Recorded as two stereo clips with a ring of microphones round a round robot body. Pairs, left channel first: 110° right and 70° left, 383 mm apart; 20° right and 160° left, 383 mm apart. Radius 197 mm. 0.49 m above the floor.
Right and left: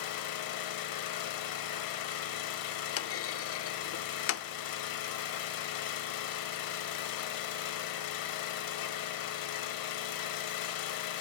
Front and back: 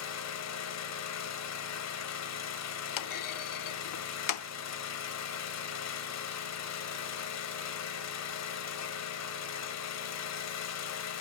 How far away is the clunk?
About 0.9 m.